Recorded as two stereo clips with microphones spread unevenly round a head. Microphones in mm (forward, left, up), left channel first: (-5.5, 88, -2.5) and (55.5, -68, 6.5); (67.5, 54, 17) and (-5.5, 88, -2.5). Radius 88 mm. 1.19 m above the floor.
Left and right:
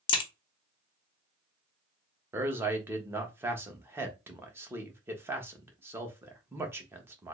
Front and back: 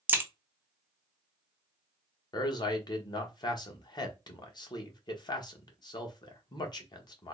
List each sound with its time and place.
0.1 s a crack: 80° left, 0.8 m
2.3 s a man speaking: 10° left, 1.0 m